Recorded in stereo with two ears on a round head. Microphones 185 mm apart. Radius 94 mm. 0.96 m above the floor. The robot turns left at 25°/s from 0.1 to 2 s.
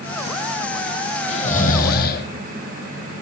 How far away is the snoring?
About 2.5 m.